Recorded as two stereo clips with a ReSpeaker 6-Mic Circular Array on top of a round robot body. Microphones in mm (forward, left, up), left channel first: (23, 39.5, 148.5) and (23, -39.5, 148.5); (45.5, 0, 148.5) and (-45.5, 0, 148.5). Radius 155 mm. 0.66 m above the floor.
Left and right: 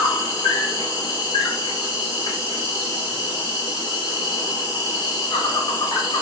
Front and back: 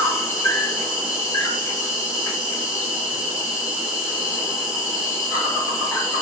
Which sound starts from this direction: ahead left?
An insect, at 0.0 s.